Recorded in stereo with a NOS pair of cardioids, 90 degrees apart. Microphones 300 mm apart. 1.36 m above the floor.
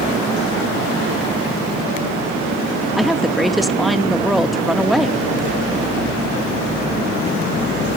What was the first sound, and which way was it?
A woman speaking, straight ahead.